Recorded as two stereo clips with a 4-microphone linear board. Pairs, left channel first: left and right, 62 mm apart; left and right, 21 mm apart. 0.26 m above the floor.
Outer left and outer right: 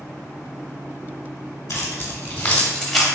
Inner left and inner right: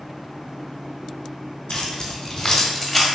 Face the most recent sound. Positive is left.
turn(degrees=-5)  # may be behind; listen again after turning